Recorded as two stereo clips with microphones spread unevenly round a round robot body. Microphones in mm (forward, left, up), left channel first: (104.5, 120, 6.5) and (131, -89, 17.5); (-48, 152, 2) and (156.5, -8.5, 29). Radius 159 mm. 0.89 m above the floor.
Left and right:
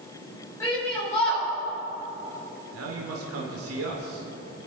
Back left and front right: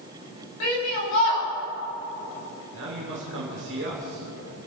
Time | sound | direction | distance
0.6 | a shout | straight behind | 6 m
2.7 | a man speaking | 95° right | 2.5 m